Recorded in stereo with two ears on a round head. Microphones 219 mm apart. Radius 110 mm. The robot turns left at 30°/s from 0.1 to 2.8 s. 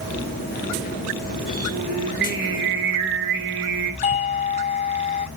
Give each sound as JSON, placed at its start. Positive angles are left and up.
{"t": 1.7, "sound": "singing", "azimuth_deg": -40, "distance_m": 2.5}
{"t": 4.0, "sound": "a doorbell", "side_deg": 25, "distance_m": 3.0}